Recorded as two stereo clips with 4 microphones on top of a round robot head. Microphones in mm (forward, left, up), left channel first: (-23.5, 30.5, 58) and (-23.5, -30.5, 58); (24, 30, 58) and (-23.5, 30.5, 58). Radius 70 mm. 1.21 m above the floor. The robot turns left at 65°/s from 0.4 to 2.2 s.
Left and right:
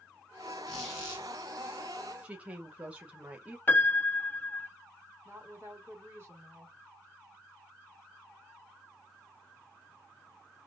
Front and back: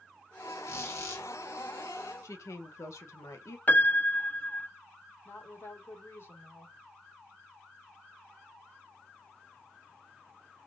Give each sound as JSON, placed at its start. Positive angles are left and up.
{"t": 0.7, "sound": "a squeak", "azimuth_deg": 15, "distance_m": 1.6}
{"t": 2.2, "sound": "a woman speaking", "azimuth_deg": -20, "distance_m": 0.7}
{"t": 3.7, "sound": "a piano", "azimuth_deg": 40, "distance_m": 0.6}
{"t": 5.2, "sound": "a woman speaking", "azimuth_deg": -40, "distance_m": 1.7}